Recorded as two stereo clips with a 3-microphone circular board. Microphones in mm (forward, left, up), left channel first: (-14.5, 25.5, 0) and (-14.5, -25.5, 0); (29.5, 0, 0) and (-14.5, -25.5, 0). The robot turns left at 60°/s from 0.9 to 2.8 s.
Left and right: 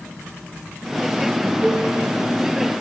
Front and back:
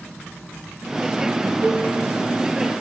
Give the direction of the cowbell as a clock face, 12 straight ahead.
5 o'clock.